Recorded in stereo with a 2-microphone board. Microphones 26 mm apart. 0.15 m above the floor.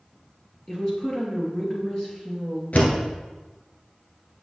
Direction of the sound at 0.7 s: 35° left (ahead or behind).